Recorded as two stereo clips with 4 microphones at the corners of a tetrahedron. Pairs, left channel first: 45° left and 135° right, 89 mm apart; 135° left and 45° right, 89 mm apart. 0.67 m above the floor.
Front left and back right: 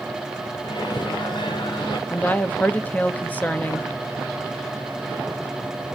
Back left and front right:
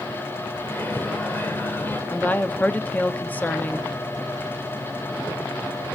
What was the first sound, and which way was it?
A microwave, 70° left.